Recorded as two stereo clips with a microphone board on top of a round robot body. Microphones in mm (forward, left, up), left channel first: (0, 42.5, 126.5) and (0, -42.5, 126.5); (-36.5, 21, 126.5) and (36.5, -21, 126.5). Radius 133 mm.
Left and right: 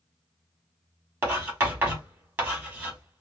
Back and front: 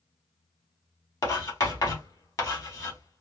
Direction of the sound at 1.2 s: 155° right.